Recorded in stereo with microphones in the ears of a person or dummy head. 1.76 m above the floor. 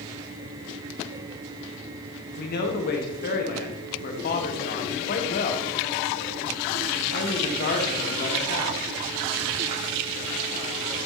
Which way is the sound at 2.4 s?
50° left (ahead or behind).